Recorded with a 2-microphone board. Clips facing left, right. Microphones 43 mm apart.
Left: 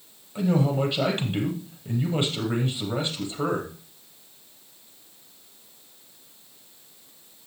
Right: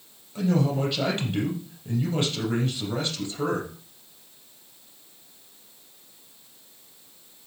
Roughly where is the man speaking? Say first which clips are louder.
Left 1 dB; centre.